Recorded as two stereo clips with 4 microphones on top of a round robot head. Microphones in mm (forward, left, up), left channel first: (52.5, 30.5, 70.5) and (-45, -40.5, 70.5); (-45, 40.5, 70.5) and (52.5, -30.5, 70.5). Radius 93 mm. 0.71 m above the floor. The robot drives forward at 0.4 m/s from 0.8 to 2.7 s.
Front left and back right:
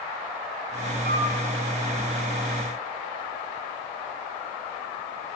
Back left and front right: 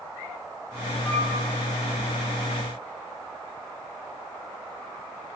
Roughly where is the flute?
Behind right.